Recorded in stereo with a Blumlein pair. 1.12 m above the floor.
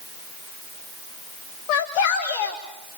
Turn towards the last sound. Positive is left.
turn(degrees=40)